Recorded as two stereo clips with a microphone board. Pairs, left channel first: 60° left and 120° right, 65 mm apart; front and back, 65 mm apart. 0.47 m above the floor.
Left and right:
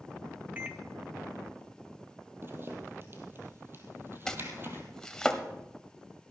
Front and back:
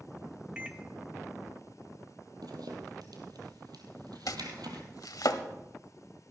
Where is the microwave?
130° right, 1.0 m.